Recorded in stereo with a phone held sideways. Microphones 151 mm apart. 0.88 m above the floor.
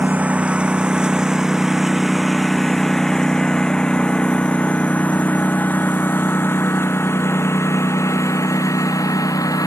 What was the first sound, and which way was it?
A lawn mower, 10° right (ahead or behind).